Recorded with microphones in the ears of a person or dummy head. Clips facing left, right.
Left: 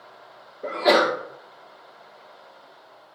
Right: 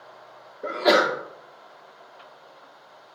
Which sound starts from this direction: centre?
A sneeze, at 0.6 s.